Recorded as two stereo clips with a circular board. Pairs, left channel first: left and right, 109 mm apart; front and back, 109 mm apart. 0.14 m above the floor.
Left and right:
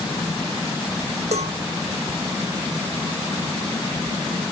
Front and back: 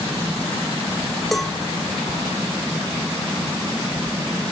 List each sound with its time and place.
1.3 s a cowbell: 90° right